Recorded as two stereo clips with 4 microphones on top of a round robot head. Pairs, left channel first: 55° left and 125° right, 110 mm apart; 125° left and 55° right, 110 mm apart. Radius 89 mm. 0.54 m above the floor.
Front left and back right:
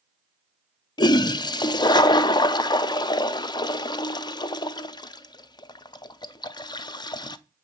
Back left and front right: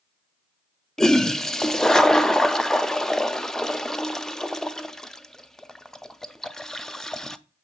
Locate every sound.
1.0 s a toilet flushing: 45° left, 0.5 m